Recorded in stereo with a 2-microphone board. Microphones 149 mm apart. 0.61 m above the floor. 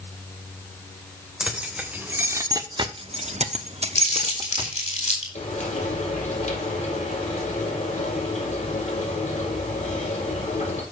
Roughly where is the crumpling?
Left.